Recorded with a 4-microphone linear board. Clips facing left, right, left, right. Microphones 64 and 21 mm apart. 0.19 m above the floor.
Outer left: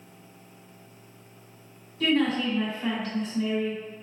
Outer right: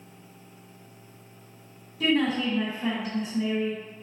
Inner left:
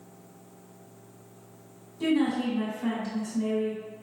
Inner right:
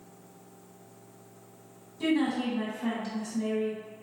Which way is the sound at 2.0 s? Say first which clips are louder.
Even, inner left 2 dB; 10° right (ahead or behind).